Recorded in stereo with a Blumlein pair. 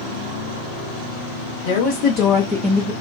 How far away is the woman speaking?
About 1.1 m.